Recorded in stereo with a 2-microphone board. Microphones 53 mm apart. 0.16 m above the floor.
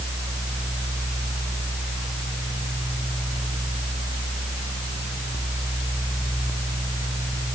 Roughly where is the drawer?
No drawer in this recording.